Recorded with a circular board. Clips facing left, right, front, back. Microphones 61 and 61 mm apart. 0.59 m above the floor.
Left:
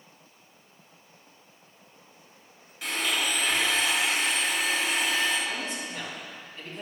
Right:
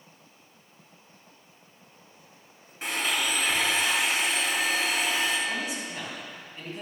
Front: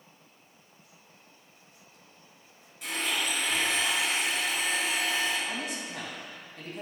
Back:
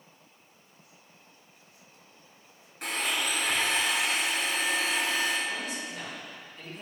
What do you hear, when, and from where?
2.8 s a blender: 145° right, 3.5 m
5.5 s a man speaking: 15° right, 3.5 m